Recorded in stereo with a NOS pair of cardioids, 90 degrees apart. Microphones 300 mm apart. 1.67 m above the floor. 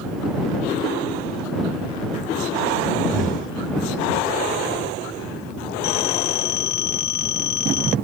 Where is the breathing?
25° right.